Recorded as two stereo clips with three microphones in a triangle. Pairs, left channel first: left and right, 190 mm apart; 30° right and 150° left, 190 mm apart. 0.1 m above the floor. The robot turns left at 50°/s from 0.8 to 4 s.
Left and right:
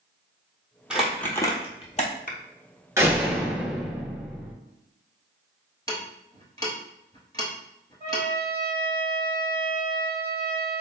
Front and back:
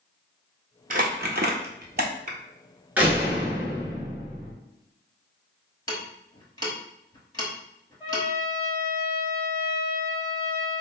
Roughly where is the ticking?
Ahead left.